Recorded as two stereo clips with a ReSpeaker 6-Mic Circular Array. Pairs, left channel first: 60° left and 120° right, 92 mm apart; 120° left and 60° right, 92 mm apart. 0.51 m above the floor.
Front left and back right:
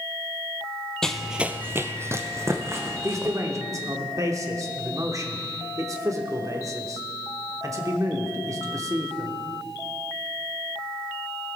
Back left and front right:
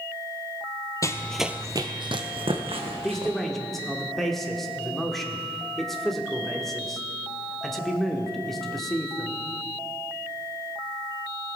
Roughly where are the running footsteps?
Behind left.